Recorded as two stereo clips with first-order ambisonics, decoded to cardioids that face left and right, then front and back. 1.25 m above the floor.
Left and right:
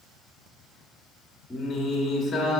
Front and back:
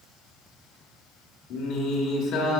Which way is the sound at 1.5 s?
20° left.